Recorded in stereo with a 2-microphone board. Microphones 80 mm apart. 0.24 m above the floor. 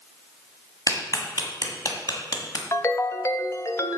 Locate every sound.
0.9 s a clap: 50° left (ahead or behind), 1.6 m
2.7 s a ringtone: 35° left (ahead or behind), 0.6 m